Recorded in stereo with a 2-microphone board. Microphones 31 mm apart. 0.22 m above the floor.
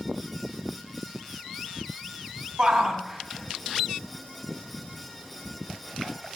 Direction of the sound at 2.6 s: 30° right (ahead or behind).